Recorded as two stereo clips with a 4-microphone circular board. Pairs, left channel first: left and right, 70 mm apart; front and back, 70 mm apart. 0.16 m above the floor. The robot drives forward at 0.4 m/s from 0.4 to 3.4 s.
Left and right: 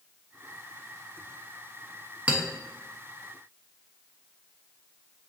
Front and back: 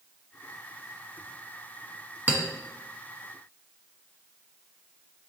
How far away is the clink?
About 0.9 m.